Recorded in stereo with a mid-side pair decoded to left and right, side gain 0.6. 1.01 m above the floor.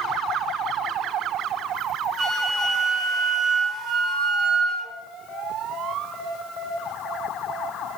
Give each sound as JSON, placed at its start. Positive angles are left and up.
{"t": 2.2, "sound": "a flute", "azimuth_deg": -60, "distance_m": 0.9}